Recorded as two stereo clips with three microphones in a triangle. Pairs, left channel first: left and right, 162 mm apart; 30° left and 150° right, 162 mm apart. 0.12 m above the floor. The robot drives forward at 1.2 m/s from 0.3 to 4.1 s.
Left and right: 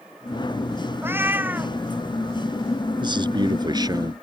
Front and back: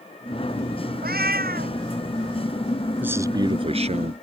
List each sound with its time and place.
1.0 s a cat meowing: 165° right; by 1.8 s 170° right
3.0 s a man speaking: 80° right; by 4.1 s 150° right